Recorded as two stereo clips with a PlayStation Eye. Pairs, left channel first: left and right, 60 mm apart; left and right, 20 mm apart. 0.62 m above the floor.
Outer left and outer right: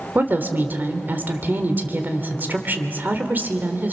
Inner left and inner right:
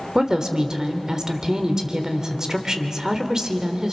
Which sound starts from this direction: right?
A woman speaking, at 0.1 s.